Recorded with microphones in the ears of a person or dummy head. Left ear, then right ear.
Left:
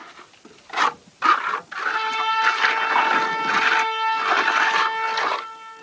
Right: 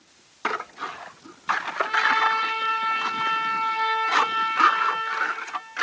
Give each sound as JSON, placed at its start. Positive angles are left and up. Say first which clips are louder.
{"t": 1.8, "sound": "a trumpet", "louder": "right 2 dB", "side_deg": 5, "distance_m": 7.5}